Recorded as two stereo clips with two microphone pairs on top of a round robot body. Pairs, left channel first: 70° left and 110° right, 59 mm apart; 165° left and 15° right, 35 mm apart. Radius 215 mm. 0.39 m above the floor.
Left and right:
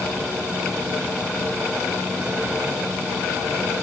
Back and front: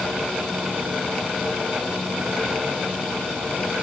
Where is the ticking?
No ticking in this recording.